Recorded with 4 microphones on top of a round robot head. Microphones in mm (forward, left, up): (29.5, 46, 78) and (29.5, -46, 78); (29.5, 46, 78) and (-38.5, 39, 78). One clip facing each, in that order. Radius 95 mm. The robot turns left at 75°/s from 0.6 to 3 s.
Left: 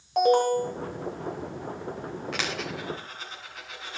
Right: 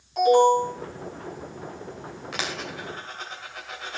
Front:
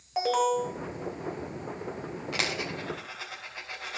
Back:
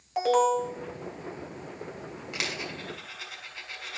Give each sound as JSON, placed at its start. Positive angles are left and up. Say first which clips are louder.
{"t": 0.2, "sound": "an alarm", "louder": "right 4 dB, back 2 dB", "azimuth_deg": 90, "distance_m": 2.0}
{"t": 2.3, "sound": "a dropped coin", "louder": "right 2 dB, front 2 dB", "azimuth_deg": -15, "distance_m": 2.5}